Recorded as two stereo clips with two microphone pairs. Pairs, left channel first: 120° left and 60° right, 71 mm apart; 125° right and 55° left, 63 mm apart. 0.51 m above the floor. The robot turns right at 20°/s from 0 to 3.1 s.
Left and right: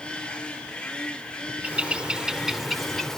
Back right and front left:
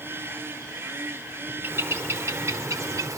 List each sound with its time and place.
1.6 s a bird: 5° left, 1.0 m; by 3.2 s 35° left, 1.0 m